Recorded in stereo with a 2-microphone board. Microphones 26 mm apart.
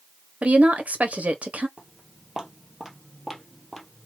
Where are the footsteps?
30° right (ahead or behind), 1.9 m; by 4.1 s 15° left (ahead or behind), 1.8 m.